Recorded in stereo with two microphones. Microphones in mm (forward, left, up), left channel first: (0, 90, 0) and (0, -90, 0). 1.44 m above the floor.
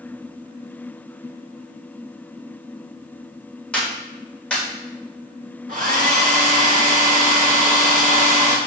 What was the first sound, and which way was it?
A clap, 5° left (ahead or behind).